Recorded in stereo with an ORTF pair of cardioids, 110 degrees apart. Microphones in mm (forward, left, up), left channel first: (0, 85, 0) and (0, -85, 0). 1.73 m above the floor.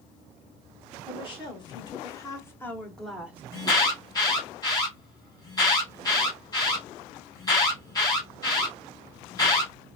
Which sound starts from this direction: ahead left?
A woman speaking, at 1.1 s.